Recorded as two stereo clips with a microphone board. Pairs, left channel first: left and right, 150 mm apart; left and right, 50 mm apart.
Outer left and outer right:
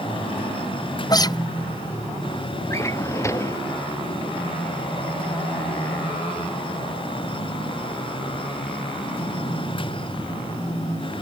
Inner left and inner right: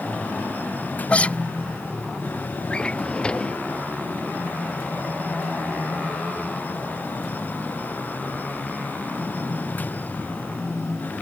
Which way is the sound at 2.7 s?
20° left (ahead or behind).